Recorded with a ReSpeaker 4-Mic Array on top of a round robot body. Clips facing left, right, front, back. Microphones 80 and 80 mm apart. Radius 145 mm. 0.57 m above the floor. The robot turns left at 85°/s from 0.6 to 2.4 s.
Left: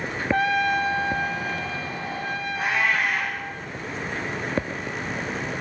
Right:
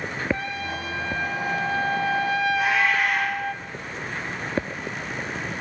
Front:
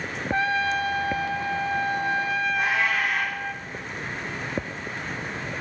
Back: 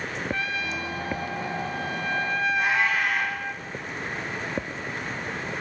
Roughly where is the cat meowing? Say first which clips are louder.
Right 2 dB, back 1 dB; ahead left.